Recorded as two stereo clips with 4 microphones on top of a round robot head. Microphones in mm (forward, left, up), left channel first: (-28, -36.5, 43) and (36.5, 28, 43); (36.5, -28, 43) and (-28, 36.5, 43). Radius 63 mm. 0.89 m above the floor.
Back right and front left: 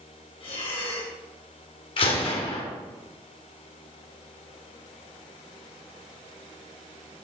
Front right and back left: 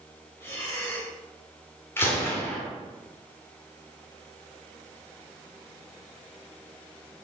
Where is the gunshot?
110° right, 3 m.